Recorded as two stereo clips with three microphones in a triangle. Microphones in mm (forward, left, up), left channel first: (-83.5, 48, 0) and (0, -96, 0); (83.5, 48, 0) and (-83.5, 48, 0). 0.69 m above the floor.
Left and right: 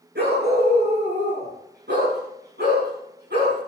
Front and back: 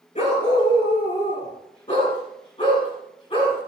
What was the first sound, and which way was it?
A dog barking, 55° right.